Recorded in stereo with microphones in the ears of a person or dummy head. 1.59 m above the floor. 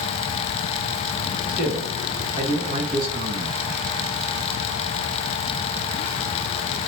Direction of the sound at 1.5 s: 10° right (ahead or behind).